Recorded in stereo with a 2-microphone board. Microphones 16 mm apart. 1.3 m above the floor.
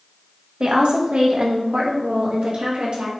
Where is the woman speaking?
75° right (ahead or behind), 1.7 m.